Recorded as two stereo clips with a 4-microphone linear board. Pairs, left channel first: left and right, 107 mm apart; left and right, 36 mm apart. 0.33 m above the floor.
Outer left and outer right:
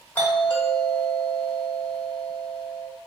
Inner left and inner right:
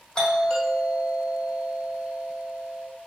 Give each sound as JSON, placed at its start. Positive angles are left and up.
{"t": 0.1, "sound": "a doorbell", "side_deg": 20, "distance_m": 1.5}